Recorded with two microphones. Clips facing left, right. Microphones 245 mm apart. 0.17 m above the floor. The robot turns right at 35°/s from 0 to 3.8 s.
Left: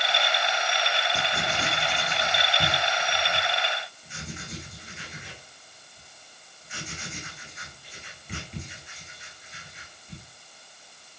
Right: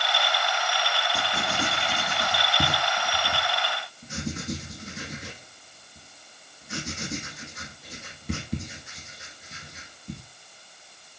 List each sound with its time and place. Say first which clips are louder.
1.1 s writing: right 1 dB; centre (ahead or behind), 6 m; by 10.2 s 80° right, 6 m